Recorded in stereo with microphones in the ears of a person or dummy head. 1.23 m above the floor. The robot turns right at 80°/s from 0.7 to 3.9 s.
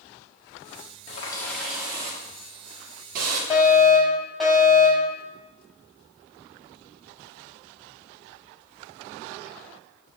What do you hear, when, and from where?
1.1 s a running tap: 140° left, 1.6 m; by 3.4 s 30° right, 1.6 m
3.5 s a fire alarm: 150° left, 1.9 m; by 5.1 s straight behind, 1.9 m